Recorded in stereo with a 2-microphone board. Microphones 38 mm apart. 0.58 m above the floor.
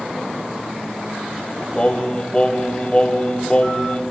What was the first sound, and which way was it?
Singing, 30° left (ahead or behind).